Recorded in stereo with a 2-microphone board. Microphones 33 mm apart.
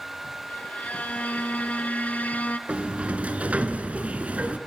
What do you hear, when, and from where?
0.5 s a violin: 55° left (ahead or behind), 0.9 m
2.7 s a sliding door: 45° right (ahead or behind), 1.2 m